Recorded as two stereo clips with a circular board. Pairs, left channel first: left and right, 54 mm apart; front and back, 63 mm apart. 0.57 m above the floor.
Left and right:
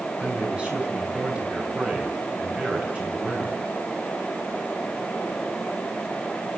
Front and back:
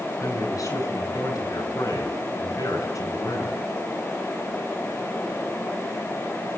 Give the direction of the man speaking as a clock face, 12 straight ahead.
1 o'clock.